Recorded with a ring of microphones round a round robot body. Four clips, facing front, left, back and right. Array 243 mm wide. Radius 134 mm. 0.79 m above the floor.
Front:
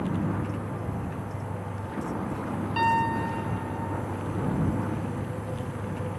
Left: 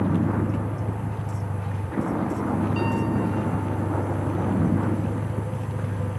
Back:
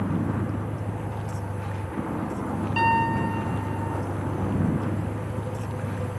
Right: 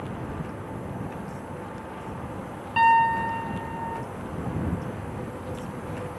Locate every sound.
0.0 s a vehicle: 95° left
2.8 s a piano: 105° right